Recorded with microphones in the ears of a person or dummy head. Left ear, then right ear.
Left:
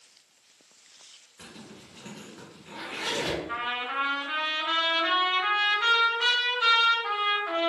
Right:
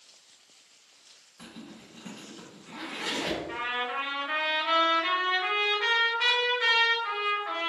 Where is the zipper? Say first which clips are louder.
Even; 25° left (ahead or behind), 1.9 m.